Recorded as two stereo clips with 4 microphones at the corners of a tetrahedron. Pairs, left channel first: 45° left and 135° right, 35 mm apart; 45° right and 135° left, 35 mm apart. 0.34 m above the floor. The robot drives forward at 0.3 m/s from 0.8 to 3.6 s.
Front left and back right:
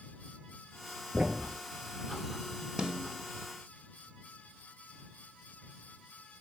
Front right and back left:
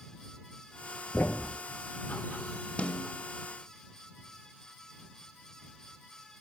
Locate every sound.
1.1 s a thud: 70° right, 0.8 m; by 1.6 s 75° right, 0.7 m
2.8 s a snare drum: 75° right, 0.9 m; by 3.1 s 85° right, 0.9 m